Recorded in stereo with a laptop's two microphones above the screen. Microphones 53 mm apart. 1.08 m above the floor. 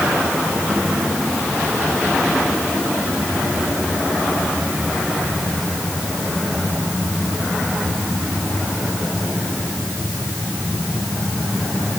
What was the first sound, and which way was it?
Only background noise.